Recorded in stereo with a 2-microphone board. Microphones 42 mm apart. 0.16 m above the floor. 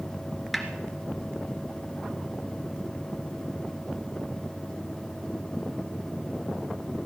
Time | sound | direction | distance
0.5 | a snare drum | centre (ahead or behind) | 2 m